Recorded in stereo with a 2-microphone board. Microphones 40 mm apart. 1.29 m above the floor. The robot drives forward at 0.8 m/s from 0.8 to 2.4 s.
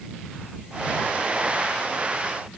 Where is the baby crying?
I don't hear a baby crying.